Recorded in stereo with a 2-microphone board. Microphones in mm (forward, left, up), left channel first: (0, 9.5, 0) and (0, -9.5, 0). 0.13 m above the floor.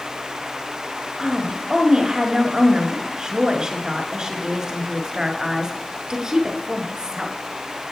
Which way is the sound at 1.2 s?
40° right (ahead or behind).